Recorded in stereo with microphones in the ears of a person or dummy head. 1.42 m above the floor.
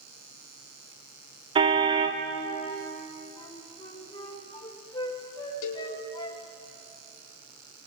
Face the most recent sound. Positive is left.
turn(degrees=80)